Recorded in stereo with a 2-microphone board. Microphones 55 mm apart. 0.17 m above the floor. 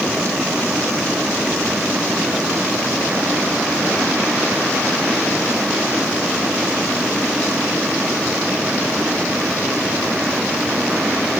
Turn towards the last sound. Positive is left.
No sound to turn to.